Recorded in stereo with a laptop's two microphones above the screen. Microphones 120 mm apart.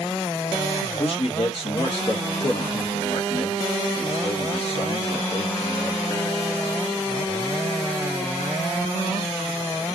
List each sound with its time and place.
1.0 s a man speaking: 55° left (ahead or behind), 1.0 m